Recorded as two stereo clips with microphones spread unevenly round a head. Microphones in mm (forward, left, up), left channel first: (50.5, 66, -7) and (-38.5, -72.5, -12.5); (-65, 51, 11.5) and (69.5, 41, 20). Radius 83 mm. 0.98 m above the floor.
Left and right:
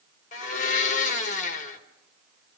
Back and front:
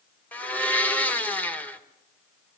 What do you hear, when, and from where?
0.3 s a blender: 100° left, 1.4 m